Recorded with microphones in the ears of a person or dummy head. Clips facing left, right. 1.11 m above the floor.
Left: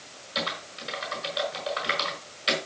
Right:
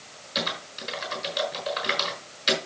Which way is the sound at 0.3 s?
20° right (ahead or behind).